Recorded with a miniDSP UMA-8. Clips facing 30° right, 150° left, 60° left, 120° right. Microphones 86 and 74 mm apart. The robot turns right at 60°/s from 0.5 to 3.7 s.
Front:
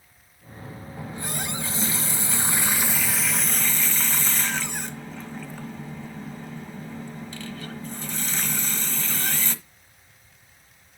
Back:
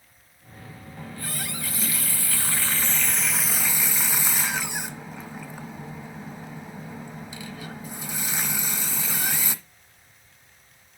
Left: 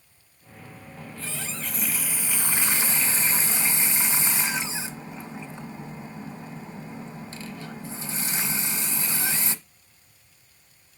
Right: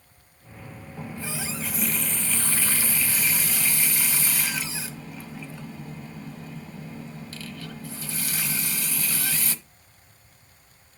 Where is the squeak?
No squeak in this recording.